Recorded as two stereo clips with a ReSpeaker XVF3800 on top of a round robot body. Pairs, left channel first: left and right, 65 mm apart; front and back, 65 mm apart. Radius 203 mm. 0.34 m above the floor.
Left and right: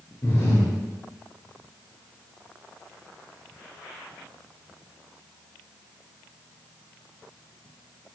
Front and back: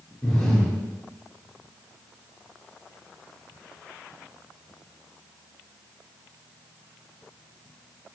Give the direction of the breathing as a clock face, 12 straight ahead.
9 o'clock.